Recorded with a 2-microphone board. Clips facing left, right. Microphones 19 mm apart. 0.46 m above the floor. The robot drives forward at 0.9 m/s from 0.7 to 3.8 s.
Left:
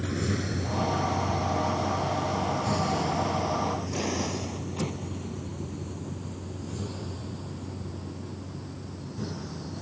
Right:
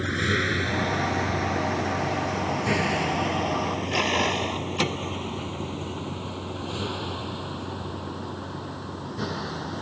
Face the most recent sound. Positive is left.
turn(degrees=-65)  # may be behind; listen again after turning